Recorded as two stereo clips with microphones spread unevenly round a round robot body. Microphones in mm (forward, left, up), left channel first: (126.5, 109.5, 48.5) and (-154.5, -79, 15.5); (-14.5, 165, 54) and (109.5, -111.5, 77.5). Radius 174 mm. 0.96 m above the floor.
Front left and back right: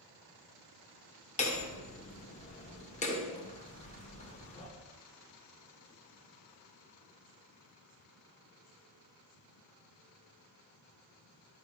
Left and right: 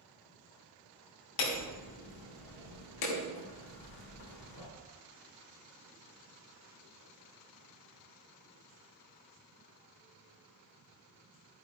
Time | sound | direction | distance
1.4 | hammering | 105° left | 1.5 m